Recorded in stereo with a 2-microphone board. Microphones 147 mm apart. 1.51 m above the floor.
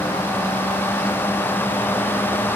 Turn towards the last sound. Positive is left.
No sound to turn to.